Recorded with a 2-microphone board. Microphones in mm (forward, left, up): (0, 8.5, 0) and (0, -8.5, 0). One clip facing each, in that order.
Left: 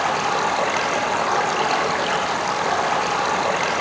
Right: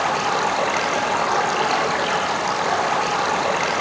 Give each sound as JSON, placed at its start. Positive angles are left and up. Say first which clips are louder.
{"t": 0.0, "sound": "running water", "louder": "even", "side_deg": -5, "distance_m": 9.0}